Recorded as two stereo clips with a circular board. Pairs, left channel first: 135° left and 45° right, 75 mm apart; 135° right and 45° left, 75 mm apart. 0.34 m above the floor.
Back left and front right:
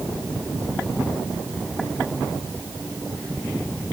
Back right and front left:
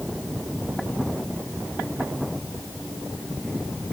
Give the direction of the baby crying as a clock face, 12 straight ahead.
I don't hear a baby crying.